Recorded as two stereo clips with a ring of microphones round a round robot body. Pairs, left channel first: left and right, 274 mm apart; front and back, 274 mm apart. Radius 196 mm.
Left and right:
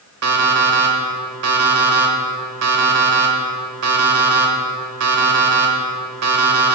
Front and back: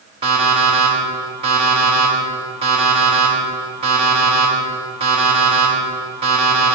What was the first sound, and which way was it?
An alarm clock, 110° right.